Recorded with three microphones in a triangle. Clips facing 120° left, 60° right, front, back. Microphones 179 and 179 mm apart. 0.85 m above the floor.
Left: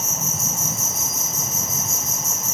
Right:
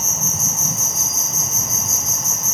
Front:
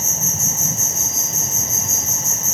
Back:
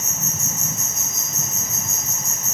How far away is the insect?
About 0.8 m.